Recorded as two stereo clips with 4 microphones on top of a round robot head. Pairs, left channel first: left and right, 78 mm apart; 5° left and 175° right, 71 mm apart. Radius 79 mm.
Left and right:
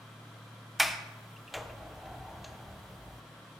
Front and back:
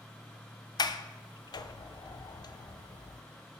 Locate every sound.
0.8 s a sliding door: straight ahead, 0.7 m